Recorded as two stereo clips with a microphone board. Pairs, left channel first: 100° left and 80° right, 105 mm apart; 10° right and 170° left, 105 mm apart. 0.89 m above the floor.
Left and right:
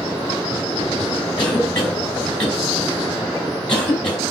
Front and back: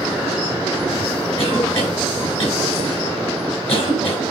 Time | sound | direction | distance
1.4 | a cough | 20° left | 5.5 m